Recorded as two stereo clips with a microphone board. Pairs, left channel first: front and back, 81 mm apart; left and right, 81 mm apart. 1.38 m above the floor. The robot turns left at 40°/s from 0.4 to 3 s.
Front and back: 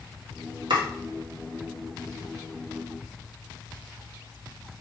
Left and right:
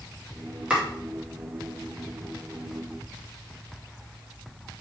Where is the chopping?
165° right, 2 m; by 0.8 s 170° right, 2 m.